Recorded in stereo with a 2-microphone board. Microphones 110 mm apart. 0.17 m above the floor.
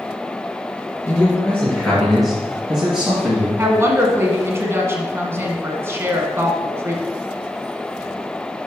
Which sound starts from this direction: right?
A woman speaking, at 3.6 s.